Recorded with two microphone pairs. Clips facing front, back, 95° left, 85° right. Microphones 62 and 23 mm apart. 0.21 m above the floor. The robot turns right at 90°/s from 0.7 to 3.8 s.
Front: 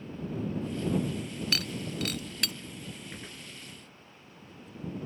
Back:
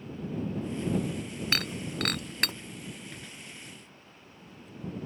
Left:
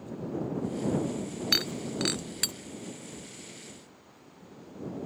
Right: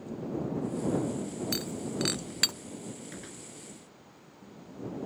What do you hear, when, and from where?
1.5 s breaking glass: 135° left; by 2.5 s 130° right
3.1 s a gunshot: 75° right; by 3.5 s 40° right